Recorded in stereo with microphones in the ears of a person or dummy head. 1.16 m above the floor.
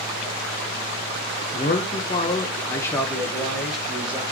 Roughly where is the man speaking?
Left.